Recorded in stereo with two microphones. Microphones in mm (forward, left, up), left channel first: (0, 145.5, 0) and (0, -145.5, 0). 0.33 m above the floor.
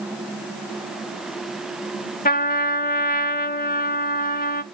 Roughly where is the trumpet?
Left.